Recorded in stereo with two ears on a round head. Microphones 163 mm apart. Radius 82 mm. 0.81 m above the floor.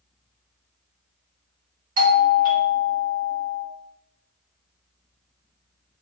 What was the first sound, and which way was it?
A doorbell, 45° right (ahead or behind).